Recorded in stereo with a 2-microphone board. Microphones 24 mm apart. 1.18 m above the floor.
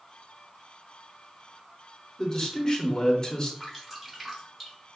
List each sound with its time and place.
2.2 s a man speaking: 30° left (ahead or behind), 0.9 m
3.6 s dripping: 10° right (ahead or behind), 1.4 m